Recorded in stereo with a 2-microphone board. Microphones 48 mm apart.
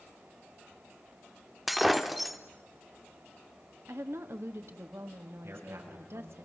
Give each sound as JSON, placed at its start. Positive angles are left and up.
{"t": 1.7, "sound": "breaking glass", "side_deg": 0, "distance_m": 1.4}
{"t": 3.9, "sound": "a woman speaking", "side_deg": -70, "distance_m": 2.0}
{"t": 5.4, "sound": "a man speaking", "side_deg": -70, "distance_m": 7.0}